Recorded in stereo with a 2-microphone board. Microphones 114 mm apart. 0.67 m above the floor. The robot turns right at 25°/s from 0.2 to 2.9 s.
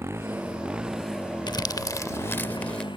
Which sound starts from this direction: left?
Crumpling, at 1.5 s.